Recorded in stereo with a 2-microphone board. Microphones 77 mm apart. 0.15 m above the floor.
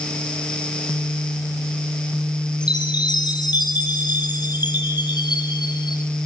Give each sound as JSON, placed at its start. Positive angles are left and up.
{"t": 2.6, "sound": "a chime", "side_deg": 65, "distance_m": 3.5}